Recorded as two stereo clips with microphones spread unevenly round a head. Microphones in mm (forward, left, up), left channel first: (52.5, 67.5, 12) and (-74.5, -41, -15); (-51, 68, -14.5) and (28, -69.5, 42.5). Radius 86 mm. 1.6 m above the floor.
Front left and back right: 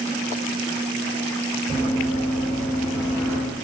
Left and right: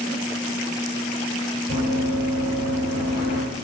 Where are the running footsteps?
Straight ahead, 1.6 m; by 3.4 s 85° right, 1.7 m.